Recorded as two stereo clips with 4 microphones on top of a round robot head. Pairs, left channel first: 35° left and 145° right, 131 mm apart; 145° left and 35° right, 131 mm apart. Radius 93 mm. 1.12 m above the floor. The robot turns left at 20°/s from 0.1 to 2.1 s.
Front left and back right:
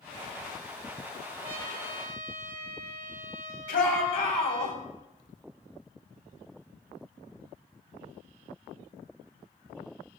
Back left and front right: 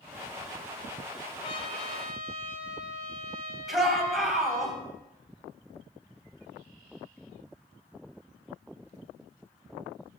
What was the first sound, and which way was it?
A trumpet, 165° right.